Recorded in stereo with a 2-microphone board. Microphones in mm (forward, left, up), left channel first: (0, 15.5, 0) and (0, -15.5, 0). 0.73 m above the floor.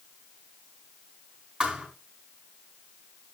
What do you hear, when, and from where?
1.6 s a thud: 30° right (ahead or behind), 3 m